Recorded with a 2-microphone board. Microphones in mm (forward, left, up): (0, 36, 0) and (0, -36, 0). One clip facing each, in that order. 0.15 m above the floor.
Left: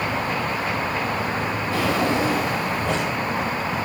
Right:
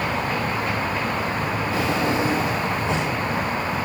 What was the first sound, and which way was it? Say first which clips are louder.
A drawer: left 2 dB; 70° left (ahead or behind).